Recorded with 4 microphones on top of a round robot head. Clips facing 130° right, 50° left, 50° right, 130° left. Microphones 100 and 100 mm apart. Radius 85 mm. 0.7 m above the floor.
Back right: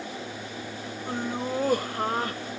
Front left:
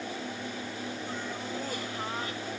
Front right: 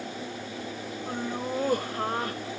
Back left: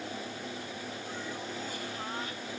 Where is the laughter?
90° right.